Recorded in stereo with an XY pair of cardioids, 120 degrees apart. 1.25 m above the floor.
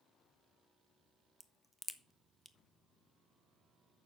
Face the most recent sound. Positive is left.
turn(degrees=10)